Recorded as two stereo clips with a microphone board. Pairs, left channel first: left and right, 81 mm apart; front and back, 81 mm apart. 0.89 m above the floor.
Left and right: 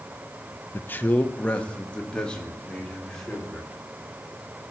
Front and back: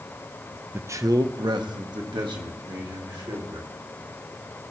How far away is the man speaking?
About 0.5 m.